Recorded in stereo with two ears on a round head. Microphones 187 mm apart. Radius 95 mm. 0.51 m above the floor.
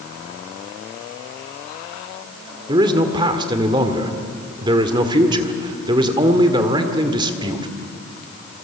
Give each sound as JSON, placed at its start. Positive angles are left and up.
{"t": 2.7, "sound": "a man speaking", "side_deg": -20, "distance_m": 1.7}